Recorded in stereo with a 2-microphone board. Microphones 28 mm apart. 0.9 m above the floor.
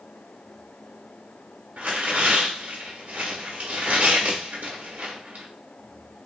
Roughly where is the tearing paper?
Right.